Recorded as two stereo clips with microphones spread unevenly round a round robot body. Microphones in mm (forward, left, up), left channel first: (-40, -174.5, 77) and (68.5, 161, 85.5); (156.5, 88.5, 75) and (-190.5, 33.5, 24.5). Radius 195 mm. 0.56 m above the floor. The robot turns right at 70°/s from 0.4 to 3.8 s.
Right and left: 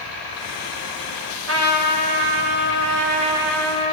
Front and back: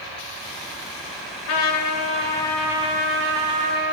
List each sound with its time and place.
1.5 s a trumpet: 20° left, 2.5 m; by 3.9 s 175° right, 2.5 m